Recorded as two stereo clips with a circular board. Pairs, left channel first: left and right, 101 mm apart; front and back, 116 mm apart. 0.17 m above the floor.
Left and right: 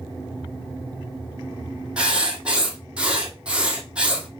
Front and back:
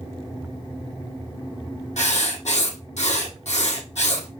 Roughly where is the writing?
Ahead.